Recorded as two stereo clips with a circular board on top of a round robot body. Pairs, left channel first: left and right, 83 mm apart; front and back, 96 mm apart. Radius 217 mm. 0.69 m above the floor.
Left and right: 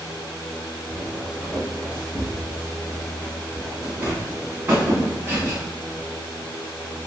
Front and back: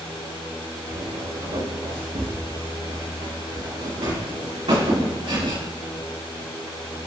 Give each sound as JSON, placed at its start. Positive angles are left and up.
{"t": 0.9, "sound": "footsteps", "azimuth_deg": 180, "distance_m": 3.0}